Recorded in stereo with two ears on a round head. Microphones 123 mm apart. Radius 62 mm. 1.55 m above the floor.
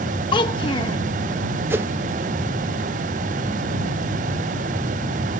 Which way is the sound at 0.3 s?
35° left (ahead or behind).